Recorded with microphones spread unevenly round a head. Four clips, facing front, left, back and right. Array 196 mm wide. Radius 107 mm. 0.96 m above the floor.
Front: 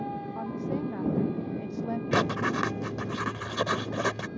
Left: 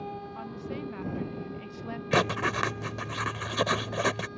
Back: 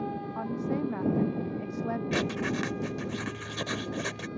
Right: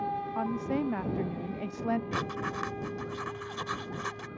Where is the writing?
50° left.